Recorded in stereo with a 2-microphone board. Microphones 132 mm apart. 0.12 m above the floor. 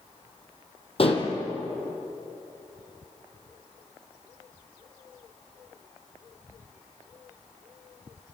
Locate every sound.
1.0 s dishes clattering: 45° left (ahead or behind), 3 m